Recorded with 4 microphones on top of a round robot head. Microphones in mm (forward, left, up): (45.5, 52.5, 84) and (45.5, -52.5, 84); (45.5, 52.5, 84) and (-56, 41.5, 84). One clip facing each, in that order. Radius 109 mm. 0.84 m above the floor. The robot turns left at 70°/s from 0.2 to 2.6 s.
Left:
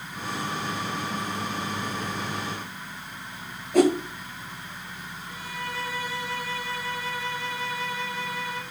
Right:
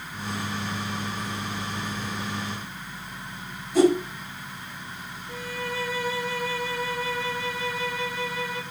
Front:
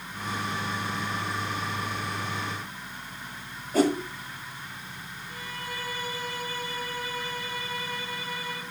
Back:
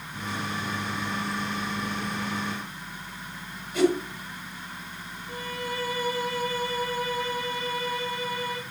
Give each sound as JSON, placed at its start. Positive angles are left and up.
{"t": 3.7, "sound": "a whoosh", "azimuth_deg": 60, "distance_m": 5.0}
{"t": 5.3, "sound": "a violin", "azimuth_deg": -140, "distance_m": 4.0}